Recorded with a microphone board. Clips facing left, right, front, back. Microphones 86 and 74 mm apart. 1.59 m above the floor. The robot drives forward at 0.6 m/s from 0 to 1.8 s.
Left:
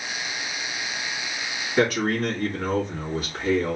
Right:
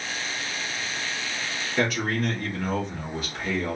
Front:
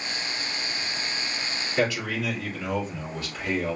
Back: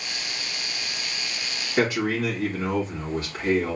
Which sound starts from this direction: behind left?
A man speaking, at 1.8 s.